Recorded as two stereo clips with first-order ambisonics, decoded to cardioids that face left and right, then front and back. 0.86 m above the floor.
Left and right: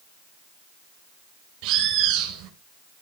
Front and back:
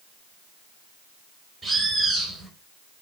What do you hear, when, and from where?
1.6 s a bird: 105° right, 3.5 m